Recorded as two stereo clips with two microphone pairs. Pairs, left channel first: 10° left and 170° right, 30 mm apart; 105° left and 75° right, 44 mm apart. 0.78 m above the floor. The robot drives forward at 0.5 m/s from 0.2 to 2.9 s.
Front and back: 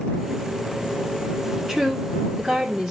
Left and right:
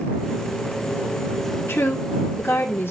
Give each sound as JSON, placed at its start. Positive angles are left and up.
{"t": 1.7, "sound": "a woman speaking", "azimuth_deg": 120, "distance_m": 2.0}